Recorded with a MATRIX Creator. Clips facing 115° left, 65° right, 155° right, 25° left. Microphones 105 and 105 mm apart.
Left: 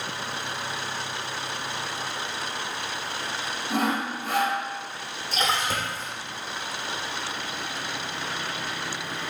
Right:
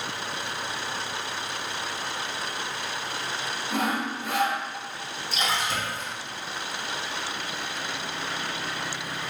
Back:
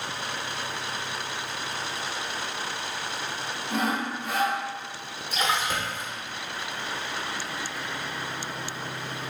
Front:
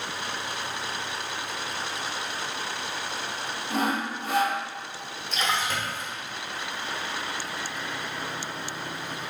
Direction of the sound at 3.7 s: 70° left.